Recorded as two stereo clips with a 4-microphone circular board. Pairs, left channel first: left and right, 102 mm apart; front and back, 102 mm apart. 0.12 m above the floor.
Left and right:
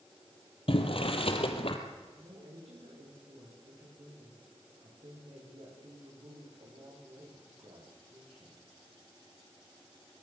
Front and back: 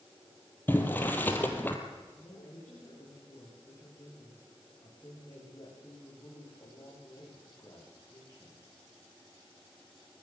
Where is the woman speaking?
65° right, 9.5 m.